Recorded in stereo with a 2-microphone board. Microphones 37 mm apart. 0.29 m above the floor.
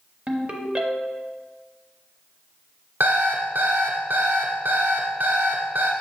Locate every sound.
0.3 s a ringtone: 35° right (ahead or behind), 0.8 m
3.0 s an alarm clock: 75° right (ahead or behind), 1.2 m